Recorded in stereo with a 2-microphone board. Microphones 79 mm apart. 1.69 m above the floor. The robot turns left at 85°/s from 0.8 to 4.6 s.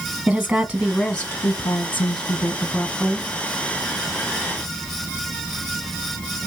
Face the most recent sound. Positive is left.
turn(degrees=-140)